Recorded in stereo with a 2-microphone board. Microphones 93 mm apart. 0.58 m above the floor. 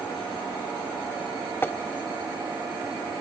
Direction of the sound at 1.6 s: 25° left (ahead or behind).